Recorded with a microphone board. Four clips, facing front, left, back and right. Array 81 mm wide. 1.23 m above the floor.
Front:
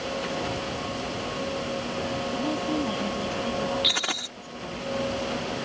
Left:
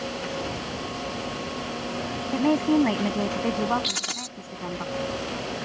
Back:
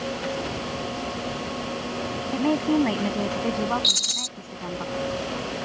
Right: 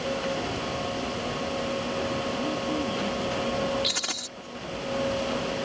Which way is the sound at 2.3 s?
120° left.